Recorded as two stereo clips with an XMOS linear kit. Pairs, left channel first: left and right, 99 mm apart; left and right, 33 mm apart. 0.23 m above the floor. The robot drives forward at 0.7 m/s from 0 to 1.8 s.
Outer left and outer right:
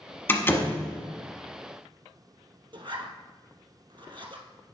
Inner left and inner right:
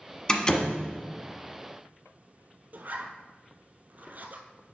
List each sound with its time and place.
0.3 s a door slam: 25° left (ahead or behind), 1.1 m; by 0.8 s 30° left (ahead or behind), 0.9 m
2.7 s a zipper: 60° right (ahead or behind), 0.9 m